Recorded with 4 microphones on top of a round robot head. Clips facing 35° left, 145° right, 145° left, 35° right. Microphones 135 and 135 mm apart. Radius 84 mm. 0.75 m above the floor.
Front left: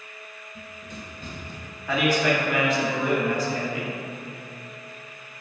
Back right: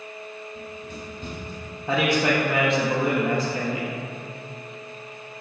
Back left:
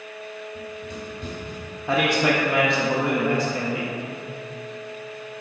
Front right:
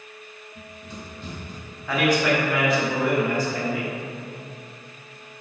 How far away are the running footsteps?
About 0.8 m.